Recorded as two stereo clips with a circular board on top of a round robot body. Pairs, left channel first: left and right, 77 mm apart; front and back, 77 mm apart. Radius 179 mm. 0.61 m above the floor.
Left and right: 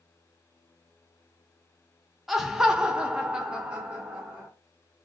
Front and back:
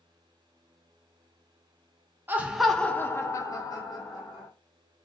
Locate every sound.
2.3 s laughter: 170° right, 0.7 m; by 4.5 s 10° right, 1.3 m